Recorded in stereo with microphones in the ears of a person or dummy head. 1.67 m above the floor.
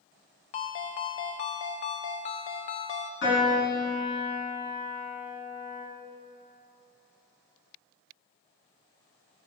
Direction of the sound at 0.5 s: 25° left (ahead or behind).